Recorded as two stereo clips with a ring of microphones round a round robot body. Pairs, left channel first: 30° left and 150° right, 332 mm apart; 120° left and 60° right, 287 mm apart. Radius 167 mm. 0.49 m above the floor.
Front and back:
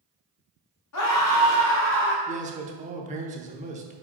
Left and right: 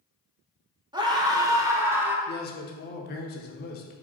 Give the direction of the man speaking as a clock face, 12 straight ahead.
7 o'clock.